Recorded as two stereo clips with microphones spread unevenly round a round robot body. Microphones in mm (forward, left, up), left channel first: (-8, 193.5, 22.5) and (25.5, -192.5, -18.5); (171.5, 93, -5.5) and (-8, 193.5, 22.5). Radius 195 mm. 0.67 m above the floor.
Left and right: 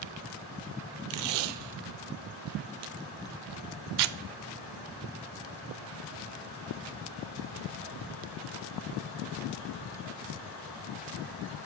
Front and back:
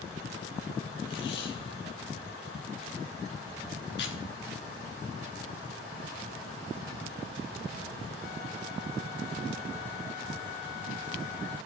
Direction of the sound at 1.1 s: 70° right.